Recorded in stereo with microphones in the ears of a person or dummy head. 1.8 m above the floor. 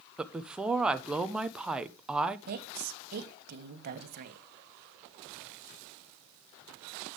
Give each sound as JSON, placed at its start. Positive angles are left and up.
{"t": 0.2, "sound": "a woman speaking", "side_deg": 0, "distance_m": 1.1}
{"t": 2.5, "sound": "a woman speaking", "side_deg": -45, "distance_m": 2.5}